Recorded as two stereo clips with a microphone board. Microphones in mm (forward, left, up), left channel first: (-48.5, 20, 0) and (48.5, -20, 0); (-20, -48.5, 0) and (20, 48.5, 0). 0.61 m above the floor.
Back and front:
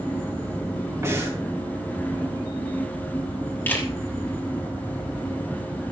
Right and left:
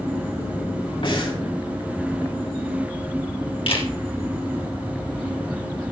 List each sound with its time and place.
1.0 s breathing: 85° right, 3.5 m
3.7 s a camera shutter: 130° right, 2.5 m